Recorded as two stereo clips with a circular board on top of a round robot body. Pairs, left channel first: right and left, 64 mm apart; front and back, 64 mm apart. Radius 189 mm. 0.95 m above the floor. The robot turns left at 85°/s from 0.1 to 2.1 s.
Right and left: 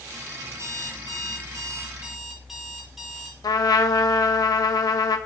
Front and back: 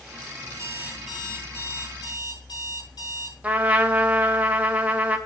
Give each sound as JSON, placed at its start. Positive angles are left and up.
{"t": 0.5, "sound": "an alarm clock", "azimuth_deg": 145, "distance_m": 7.5}
{"t": 3.4, "sound": "a trumpet", "azimuth_deg": -110, "distance_m": 2.0}